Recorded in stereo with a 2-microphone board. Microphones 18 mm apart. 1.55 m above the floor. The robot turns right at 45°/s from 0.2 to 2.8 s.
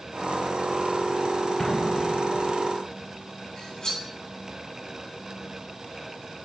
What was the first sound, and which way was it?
An explosion, 15° left (ahead or behind).